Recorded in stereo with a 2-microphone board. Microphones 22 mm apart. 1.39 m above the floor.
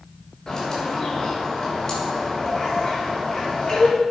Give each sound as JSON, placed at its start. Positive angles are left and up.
{"t": 0.5, "sound": "a bird", "side_deg": 20, "distance_m": 6.5}